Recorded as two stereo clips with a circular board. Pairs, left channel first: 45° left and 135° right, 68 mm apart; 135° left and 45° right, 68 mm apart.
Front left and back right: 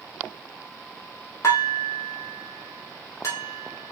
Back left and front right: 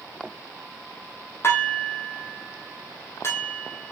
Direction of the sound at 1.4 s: 85° left.